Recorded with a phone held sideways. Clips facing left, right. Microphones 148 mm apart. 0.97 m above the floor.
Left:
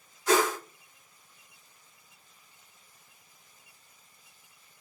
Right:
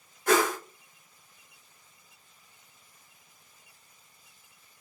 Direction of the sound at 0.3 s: 55° right (ahead or behind).